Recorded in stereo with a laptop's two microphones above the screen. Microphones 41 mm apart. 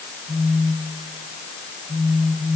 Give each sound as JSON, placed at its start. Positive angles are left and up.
{"t": 0.3, "sound": "a phone buzzing", "side_deg": -20, "distance_m": 2.5}